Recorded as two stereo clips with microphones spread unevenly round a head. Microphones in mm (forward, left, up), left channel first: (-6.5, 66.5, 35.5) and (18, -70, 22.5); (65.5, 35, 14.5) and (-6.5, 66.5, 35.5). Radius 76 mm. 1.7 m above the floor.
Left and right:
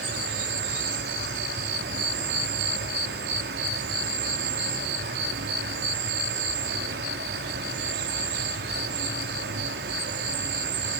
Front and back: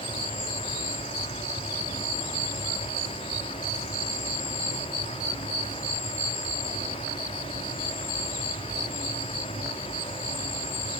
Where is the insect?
70° right, 3 m.